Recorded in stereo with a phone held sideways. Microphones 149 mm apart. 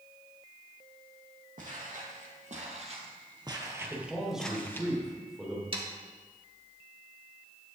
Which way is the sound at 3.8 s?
5° right (ahead or behind).